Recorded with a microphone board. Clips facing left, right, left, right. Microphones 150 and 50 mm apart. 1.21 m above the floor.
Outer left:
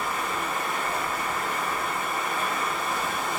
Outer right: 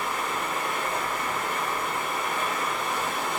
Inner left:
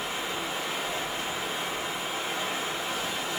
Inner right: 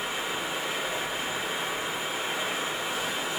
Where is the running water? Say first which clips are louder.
Even, inner right 1 dB; 15° right (ahead or behind), 3.5 m.